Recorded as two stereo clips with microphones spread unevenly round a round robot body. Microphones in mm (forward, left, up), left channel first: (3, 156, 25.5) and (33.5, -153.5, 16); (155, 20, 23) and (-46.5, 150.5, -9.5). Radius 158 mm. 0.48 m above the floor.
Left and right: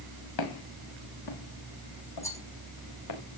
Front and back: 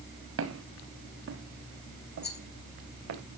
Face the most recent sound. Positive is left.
turn(degrees=15)